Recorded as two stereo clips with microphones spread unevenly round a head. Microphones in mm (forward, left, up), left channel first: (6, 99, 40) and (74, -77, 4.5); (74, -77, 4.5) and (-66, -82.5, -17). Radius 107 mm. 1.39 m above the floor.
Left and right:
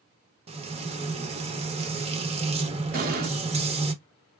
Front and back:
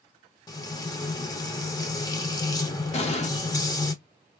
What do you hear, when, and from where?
0.5 s frying: 20° right, 1.2 m
2.9 s an explosion: 25° right, 1.6 m